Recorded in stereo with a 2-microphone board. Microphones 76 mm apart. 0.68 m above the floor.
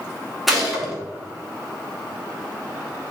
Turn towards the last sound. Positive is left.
turn(degrees=0)  # may be behind; listen again after turning